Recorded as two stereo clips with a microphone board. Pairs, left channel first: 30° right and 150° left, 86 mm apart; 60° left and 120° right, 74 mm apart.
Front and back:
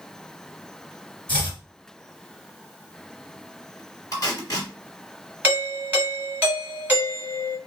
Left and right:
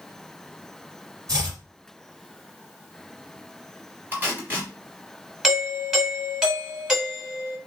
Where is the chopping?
100° right, 2 m.